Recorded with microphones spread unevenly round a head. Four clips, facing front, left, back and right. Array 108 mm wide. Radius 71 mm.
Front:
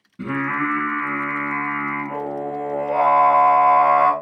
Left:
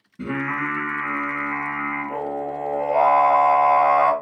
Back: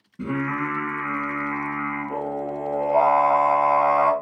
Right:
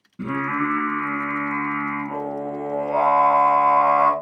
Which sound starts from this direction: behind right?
Singing, at 0.2 s.